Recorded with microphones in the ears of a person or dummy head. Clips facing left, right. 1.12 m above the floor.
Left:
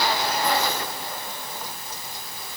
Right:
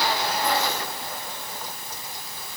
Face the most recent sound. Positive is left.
No sound to turn to.